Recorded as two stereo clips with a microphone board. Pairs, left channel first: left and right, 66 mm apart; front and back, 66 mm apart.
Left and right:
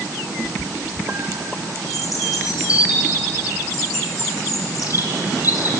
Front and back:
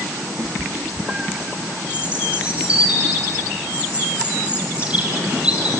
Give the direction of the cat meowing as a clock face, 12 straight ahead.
6 o'clock.